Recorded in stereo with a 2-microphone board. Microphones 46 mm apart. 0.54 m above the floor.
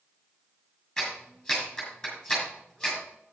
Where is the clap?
20° left (ahead or behind), 5.5 m.